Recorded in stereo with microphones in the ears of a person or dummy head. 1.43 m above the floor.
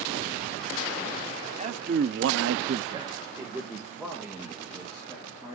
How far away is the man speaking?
About 1.0 m.